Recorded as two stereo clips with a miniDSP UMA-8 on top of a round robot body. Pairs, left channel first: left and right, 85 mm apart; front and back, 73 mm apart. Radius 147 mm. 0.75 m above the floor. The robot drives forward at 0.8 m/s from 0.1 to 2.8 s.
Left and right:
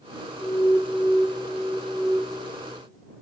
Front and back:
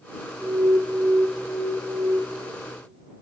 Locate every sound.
0.4 s an alarm: 130° left, 0.7 m; by 2.2 s 170° left, 1.7 m